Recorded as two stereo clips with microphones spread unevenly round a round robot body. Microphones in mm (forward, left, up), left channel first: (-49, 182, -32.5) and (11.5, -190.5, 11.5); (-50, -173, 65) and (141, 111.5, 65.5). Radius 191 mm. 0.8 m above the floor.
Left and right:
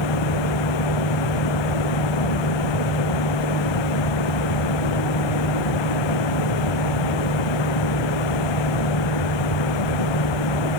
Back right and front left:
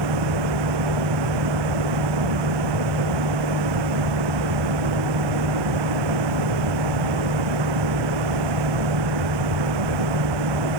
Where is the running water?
75° left.